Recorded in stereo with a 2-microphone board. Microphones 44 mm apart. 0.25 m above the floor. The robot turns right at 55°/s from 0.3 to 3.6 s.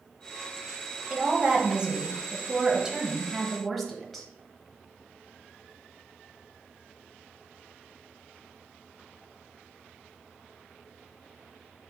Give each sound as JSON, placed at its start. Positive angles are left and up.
{"t": 1.1, "sound": "a woman speaking", "side_deg": -20, "distance_m": 0.9}